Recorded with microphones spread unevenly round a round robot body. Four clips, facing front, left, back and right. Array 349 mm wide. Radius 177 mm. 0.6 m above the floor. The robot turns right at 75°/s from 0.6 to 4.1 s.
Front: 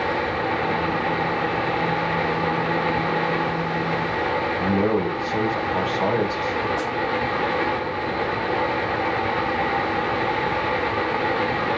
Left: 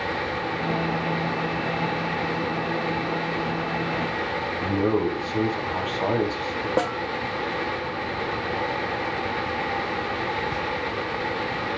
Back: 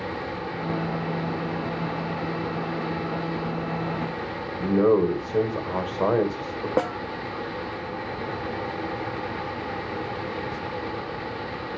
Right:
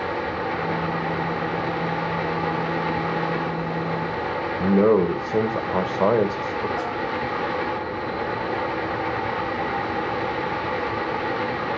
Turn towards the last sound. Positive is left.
turn(degrees=145)